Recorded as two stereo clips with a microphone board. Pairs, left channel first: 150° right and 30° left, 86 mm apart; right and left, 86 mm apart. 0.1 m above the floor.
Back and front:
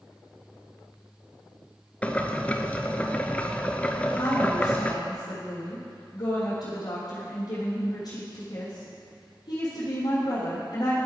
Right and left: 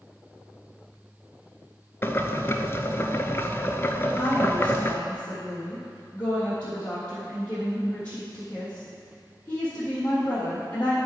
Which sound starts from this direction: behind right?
A woman speaking, at 4.1 s.